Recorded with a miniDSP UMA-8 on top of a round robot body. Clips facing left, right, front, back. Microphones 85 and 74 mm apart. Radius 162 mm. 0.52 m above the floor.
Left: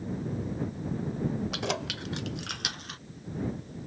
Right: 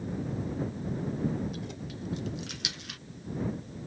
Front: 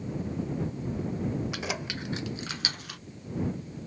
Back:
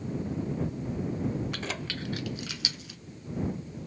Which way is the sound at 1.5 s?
80° left.